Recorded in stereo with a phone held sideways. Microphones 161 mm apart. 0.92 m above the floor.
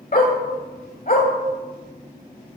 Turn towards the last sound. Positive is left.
turn(degrees=60)  # may be behind; listen again after turning